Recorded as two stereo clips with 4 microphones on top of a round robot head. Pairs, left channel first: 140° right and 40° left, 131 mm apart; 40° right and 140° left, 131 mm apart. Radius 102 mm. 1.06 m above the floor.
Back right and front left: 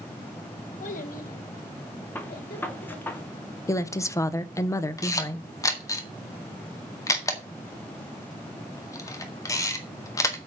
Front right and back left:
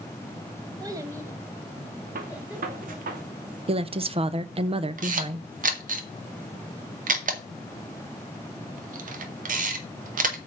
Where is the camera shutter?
155° left, 1.9 m.